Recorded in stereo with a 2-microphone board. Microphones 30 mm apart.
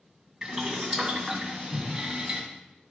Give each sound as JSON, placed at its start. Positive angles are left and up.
{"t": 0.4, "sound": "boiling", "side_deg": -15, "distance_m": 1.8}